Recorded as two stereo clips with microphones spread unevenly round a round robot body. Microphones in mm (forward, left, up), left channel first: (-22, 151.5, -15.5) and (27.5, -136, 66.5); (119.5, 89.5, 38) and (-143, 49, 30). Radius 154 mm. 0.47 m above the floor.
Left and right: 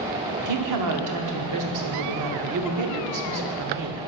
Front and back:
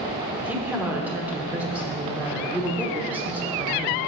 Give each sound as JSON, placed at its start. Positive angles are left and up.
{"t": 0.4, "sound": "a woman speaking", "azimuth_deg": -90, "distance_m": 1.2}